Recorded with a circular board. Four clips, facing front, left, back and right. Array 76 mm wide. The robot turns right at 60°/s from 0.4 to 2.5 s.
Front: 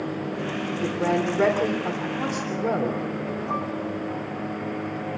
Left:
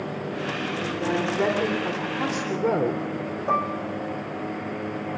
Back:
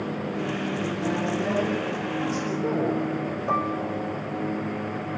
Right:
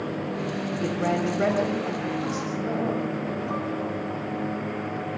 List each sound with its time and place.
0.8 s a woman speaking: 15° right, 3.5 m; by 3.0 s 85° left, 3.5 m
3.5 s dishes clattering: 120° left, 1.6 m